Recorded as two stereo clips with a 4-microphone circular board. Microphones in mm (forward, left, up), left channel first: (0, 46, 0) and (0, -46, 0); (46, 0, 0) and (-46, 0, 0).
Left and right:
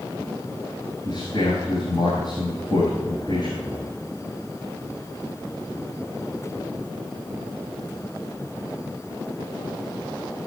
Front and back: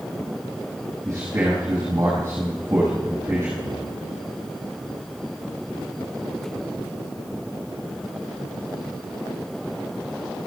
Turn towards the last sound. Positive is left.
turn(degrees=125)